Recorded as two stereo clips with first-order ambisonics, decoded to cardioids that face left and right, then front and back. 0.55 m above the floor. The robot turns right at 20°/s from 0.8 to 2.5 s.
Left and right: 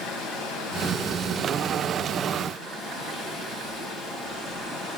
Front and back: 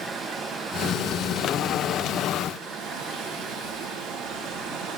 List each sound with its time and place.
0.0 s running water: 110° left, 3 m; by 5.0 s 145° left, 3 m